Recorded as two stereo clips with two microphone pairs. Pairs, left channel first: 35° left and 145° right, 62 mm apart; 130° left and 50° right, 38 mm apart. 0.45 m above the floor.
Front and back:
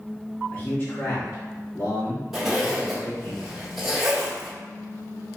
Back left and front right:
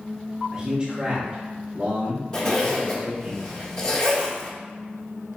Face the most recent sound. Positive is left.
turn(degrees=140)